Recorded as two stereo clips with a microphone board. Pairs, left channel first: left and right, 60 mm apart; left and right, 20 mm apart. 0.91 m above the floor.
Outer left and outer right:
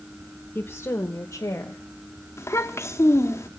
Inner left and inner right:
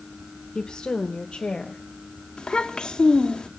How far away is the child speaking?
About 1.1 m.